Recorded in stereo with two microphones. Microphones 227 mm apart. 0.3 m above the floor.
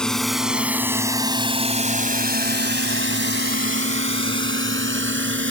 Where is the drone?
5° left (ahead or behind); by 5.5 s 60° right (ahead or behind).